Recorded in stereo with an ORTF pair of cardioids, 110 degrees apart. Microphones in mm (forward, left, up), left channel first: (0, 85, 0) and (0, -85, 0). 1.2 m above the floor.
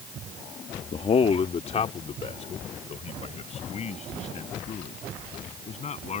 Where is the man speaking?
35° left; by 6.2 s 45° left.